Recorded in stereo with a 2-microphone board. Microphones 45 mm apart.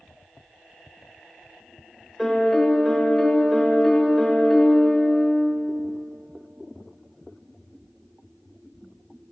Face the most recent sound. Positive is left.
turn(degrees=5)  # may be behind; listen again after turning